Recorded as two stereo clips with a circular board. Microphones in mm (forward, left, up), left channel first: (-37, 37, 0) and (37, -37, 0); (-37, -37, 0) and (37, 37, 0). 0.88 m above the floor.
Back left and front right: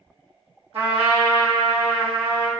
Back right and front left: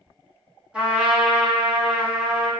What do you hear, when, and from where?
0.7 s a trumpet: 35° right, 1.5 m